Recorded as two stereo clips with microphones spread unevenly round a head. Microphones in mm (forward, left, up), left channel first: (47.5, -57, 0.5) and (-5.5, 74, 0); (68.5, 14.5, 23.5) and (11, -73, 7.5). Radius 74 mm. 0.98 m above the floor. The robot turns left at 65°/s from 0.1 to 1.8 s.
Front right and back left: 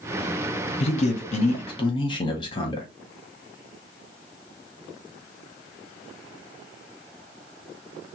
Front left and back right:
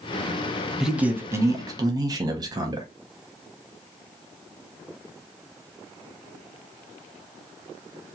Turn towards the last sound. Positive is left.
turn(degrees=-115)